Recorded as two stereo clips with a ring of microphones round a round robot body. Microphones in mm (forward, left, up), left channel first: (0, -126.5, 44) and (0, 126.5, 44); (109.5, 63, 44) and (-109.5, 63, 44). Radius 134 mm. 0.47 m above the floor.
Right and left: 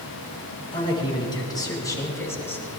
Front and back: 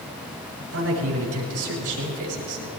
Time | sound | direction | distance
0.7 | a man speaking | 160° right | 6 m